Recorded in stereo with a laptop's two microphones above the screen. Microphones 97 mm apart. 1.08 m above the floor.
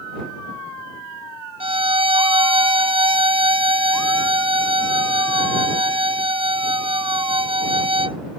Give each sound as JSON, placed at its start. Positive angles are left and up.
{"t": 1.6, "sound": "a violin", "side_deg": -70}